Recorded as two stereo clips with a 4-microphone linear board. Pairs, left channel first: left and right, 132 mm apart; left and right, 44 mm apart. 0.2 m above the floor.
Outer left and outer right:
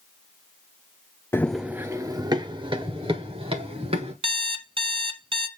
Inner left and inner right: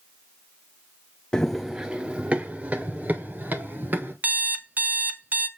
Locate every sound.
1.3 s running footsteps: 20° left (ahead or behind), 0.6 m; by 4.1 s 45° right (ahead or behind), 3.5 m
4.2 s an alarm clock: 45° right (ahead or behind), 1.1 m